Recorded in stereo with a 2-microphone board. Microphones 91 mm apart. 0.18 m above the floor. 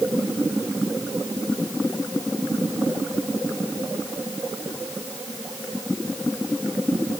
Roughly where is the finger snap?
No finger snap in this recording.